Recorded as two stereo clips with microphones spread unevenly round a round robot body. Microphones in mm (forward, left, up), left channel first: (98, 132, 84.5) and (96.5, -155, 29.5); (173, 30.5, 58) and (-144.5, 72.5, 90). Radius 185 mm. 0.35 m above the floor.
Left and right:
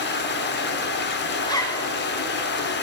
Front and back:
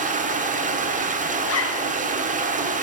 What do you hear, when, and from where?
0.0 s running water: 120° left, 1.2 m
1.4 s a zipper: 5° left, 1.3 m